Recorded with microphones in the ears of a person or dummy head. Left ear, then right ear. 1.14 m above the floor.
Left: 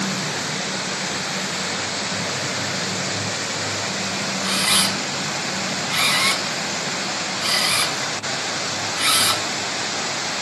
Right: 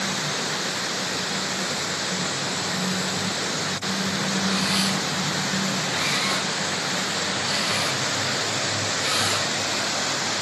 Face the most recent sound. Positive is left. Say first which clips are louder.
# left 7 dB
turn(degrees=40)  # may be behind; listen again after turning